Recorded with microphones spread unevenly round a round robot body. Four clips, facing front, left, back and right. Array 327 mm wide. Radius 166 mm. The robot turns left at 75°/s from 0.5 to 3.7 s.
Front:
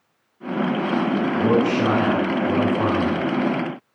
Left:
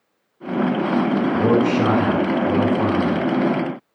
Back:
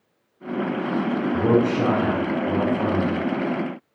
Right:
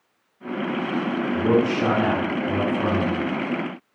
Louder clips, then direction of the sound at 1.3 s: Left 1 dB, back 1 dB; 175° right.